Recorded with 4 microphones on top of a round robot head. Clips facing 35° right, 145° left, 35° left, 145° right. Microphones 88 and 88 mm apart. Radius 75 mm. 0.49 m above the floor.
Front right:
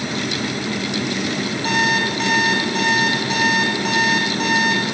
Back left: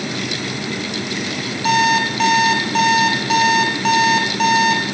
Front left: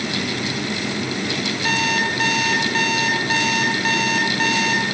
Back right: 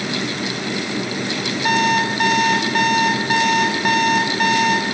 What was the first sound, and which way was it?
An alarm clock, 135° left.